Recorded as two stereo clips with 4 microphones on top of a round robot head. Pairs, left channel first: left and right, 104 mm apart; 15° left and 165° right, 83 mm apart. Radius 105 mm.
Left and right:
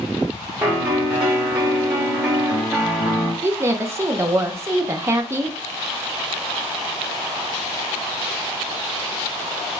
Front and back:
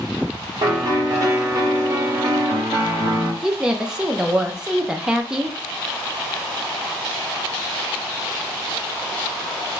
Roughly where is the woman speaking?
Right.